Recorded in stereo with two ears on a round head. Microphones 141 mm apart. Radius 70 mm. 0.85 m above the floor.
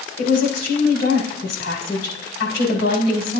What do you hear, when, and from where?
0.2 s a woman speaking: 70° left (ahead or behind), 4.5 m